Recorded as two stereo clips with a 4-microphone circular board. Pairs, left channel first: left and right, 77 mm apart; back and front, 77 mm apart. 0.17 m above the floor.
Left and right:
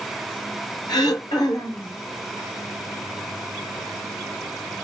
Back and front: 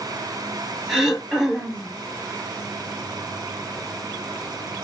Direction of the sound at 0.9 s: 80° left.